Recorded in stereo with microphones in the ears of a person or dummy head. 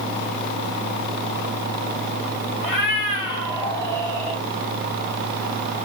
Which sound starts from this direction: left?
A cat meowing, at 2.6 s.